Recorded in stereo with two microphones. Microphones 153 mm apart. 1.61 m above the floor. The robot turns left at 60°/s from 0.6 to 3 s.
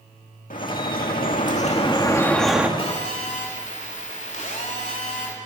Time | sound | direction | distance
0.5 | dripping | 115° left | 2 m
2.8 | a phone buzzing | 40° left (ahead or behind) | 3.5 m